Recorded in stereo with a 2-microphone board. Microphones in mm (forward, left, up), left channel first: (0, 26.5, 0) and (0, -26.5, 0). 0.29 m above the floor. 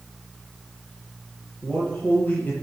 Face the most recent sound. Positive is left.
turn(degrees=35)  # may be behind; listen again after turning